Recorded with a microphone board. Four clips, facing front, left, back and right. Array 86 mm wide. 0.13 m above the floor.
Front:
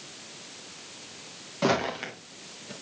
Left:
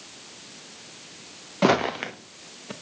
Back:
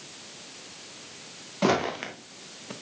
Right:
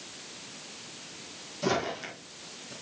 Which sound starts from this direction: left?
Footsteps, at 1.6 s.